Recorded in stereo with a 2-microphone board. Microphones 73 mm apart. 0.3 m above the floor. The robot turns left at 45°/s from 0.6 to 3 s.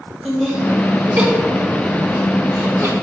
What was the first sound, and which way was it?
Laughter, 15° right (ahead or behind).